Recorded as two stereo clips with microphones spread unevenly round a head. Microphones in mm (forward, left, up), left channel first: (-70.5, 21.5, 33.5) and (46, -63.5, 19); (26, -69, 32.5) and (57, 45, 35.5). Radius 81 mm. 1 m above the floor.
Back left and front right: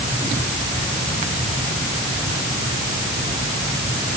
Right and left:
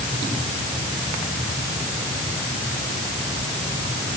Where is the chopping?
I don't hear chopping.